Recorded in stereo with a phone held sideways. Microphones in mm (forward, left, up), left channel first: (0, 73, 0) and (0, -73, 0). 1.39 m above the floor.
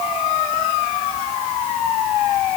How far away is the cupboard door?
No cupboard door in this recording.